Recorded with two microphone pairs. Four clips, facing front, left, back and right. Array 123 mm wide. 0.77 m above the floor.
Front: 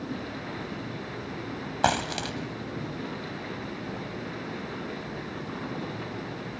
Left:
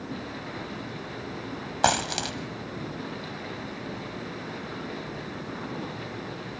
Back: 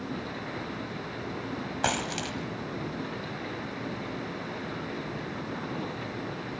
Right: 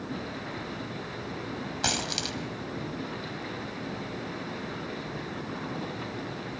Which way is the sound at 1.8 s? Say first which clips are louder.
Left 10 dB, front 5 dB; 65° left.